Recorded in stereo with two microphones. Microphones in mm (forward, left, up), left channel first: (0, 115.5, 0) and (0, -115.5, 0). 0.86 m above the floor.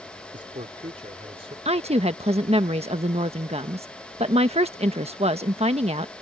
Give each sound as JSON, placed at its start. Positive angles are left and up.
{"t": 0.3, "sound": "a man speaking", "side_deg": -35}
{"t": 1.6, "sound": "a woman speaking", "side_deg": -25}